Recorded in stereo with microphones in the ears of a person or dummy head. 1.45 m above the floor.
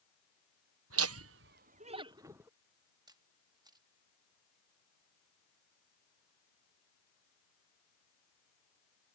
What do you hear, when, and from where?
0.9 s laughter: 80° right; by 2.5 s 10° right (ahead or behind)
3.1 s a camera shutter: 25° right (ahead or behind)